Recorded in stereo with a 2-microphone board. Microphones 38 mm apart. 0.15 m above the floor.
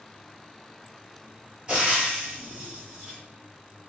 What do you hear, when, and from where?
1.7 s frying: 25° right (ahead or behind), 1.1 m